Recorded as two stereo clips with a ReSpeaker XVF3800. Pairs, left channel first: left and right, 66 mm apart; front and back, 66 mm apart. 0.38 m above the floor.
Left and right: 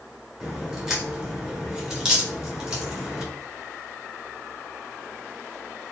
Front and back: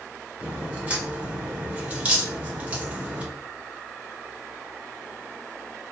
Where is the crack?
160° right, 1.1 m.